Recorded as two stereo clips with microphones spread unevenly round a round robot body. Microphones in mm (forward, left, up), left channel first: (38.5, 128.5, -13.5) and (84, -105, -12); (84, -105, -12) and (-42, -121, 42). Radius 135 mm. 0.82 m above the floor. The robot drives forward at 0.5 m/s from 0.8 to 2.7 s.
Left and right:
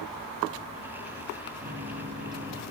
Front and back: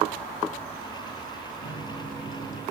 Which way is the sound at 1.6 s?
5° right.